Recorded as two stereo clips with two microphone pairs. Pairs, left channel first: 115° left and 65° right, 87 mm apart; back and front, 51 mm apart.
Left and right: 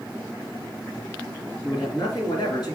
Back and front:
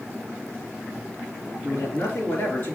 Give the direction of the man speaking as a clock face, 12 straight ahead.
7 o'clock.